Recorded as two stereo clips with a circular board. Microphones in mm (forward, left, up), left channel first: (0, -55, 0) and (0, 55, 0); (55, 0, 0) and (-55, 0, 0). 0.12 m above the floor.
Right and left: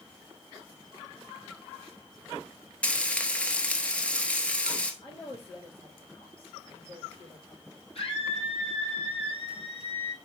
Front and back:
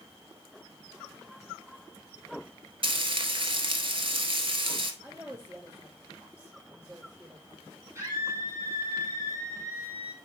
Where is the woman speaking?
115° right, 4.5 m.